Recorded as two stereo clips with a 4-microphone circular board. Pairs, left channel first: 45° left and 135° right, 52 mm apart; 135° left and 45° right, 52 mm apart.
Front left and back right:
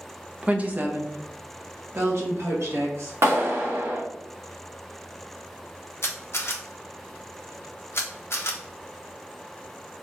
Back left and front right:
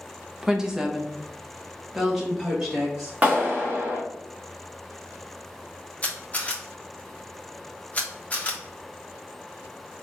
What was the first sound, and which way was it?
A woman speaking, 105° right.